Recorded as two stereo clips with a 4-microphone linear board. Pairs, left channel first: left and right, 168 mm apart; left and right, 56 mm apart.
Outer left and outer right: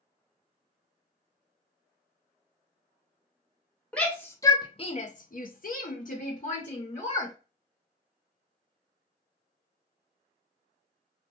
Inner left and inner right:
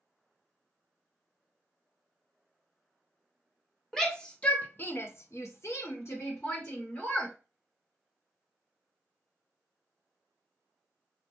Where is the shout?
5° left (ahead or behind), 0.8 m; by 7.3 s 45° left (ahead or behind), 1.4 m.